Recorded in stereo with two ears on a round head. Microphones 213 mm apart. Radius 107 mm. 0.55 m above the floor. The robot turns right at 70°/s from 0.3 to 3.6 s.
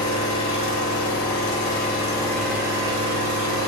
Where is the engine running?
30° left, 1.2 m; by 3.7 s 95° right, 1.2 m.